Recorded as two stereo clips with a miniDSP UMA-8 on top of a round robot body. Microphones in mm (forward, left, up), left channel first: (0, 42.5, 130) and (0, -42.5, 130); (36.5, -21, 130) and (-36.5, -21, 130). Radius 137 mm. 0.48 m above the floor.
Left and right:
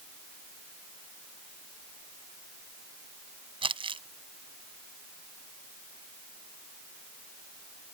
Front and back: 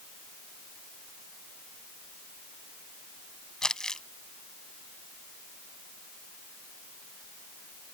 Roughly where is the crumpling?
Right.